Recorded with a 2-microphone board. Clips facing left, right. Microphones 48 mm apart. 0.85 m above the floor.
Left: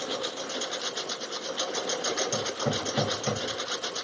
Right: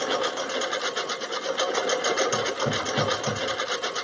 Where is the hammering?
15° left (ahead or behind).